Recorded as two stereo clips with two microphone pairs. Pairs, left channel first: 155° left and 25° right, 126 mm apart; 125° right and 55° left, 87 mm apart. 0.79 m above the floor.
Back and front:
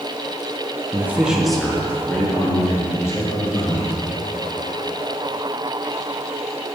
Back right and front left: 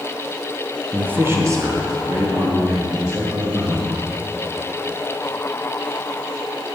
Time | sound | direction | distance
0.9 | a man speaking | straight ahead | 0.9 m